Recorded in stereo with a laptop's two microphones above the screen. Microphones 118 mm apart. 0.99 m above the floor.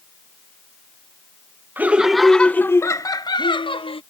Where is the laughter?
15° right (ahead or behind); by 4.0 s 50° left (ahead or behind).